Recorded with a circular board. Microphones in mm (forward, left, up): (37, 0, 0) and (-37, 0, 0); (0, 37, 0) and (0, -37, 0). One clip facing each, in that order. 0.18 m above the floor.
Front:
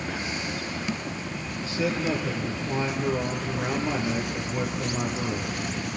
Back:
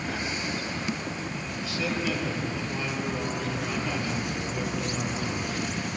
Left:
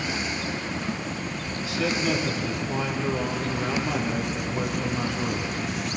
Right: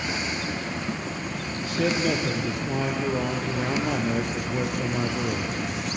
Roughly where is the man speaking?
Ahead right.